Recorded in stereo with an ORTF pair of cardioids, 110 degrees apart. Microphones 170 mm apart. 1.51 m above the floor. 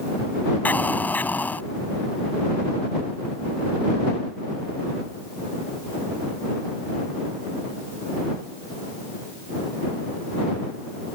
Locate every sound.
0.7 s an explosion: 10° left